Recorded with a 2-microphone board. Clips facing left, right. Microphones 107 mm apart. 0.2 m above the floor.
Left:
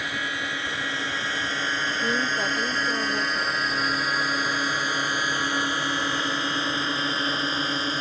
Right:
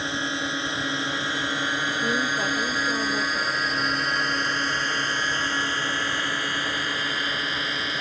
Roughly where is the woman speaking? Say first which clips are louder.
Even; centre.